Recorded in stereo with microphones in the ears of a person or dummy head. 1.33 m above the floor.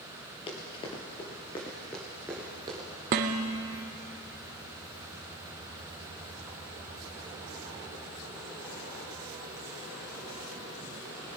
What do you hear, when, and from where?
0.5 s running footsteps: 35° left (ahead or behind), 1.9 m; by 2.9 s 20° right (ahead or behind), 1.5 m
3.1 s dishes clattering: 30° right (ahead or behind), 0.5 m